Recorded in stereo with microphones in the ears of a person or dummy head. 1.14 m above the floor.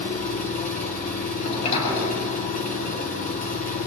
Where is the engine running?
40° left (ahead or behind), 3 m.